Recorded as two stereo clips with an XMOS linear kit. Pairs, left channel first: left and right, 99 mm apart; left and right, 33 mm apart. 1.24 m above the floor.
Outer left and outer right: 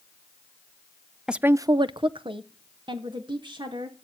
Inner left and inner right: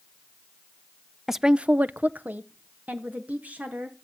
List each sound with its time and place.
1.3 s a woman speaking: 5° right (ahead or behind), 0.5 m; by 3.9 s 50° right (ahead or behind), 2.5 m